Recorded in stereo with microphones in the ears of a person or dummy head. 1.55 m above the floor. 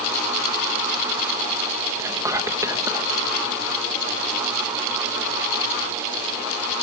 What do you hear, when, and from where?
2.0 s whispering: 15° right (ahead or behind)